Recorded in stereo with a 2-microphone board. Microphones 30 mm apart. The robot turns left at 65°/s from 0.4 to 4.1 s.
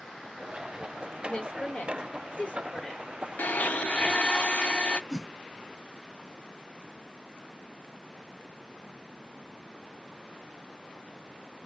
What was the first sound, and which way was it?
A woman speaking, 45° left (ahead or behind).